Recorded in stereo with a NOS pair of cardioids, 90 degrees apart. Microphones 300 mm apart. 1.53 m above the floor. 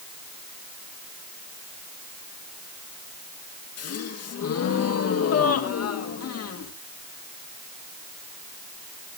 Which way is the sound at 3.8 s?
55° left.